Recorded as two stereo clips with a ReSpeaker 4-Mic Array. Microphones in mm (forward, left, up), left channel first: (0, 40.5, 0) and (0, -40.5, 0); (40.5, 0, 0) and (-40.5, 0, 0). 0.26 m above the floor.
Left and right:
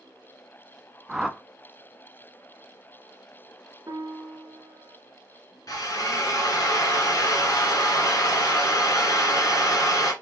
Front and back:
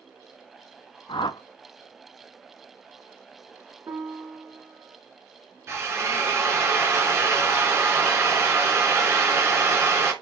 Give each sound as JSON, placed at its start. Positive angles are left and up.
{"t": 1.1, "sound": "a whoosh", "azimuth_deg": -5, "distance_m": 0.5}
{"t": 3.9, "sound": "a piano", "azimuth_deg": -130, "distance_m": 1.0}
{"t": 5.7, "sound": "a drill", "azimuth_deg": 130, "distance_m": 2.0}